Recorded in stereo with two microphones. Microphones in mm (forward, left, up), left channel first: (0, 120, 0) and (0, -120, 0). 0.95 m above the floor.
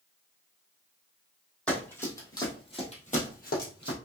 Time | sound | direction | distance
1.7 | running footsteps | 5° left (ahead or behind) | 2.5 m